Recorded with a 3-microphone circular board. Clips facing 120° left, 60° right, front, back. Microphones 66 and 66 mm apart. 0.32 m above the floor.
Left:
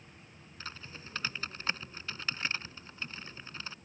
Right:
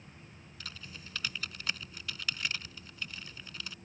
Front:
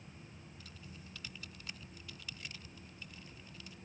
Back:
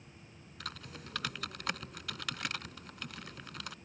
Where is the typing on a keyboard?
175° left.